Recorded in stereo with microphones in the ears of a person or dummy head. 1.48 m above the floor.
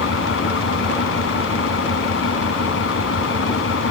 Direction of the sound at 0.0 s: 90° left.